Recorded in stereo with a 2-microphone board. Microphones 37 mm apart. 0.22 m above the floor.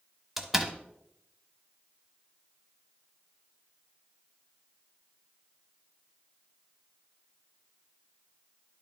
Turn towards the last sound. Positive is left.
turn(degrees=-10)  # may be behind; listen again after turning